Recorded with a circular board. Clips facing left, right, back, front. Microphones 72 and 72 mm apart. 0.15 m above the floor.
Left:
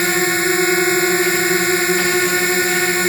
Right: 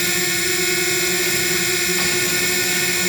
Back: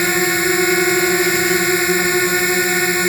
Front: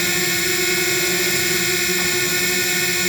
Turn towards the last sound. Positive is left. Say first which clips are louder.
# left 6 dB, back 6 dB
turn(degrees=135)